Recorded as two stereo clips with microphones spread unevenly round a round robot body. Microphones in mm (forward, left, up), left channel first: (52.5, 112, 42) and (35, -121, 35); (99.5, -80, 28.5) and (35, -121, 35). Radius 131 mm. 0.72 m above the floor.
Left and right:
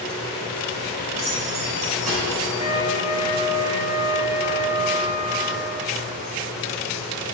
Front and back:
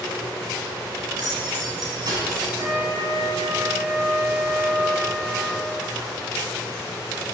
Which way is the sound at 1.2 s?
120° right.